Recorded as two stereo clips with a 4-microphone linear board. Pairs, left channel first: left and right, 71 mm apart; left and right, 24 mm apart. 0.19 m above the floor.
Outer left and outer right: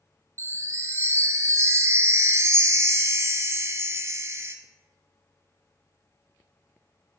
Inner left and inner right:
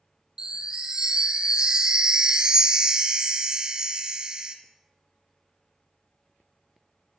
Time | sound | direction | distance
0.4 | a chime | 40° right (ahead or behind) | 0.6 m